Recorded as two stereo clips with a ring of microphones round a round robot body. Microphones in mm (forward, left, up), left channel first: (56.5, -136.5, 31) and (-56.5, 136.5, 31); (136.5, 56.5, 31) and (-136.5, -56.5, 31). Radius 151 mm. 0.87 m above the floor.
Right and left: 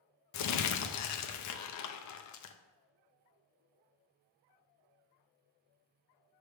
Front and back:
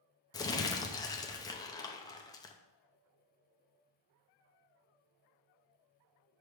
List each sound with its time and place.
0.3 s crumpling: 55° right, 0.6 m